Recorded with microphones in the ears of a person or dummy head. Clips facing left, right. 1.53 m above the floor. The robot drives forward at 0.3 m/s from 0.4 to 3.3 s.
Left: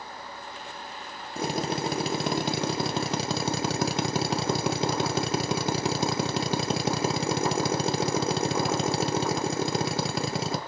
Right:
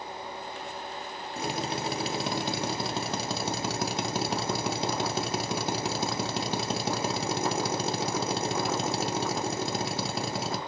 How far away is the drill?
About 1.1 m.